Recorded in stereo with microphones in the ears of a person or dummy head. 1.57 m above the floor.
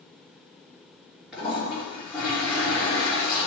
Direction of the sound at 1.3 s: Centre (ahead or behind).